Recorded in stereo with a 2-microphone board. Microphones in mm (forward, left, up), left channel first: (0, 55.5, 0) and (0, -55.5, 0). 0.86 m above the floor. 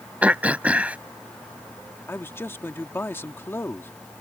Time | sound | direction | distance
0.2 | throat clearing | 15° right (ahead or behind) | ?
2.1 | a man speaking | 20° left (ahead or behind) | ?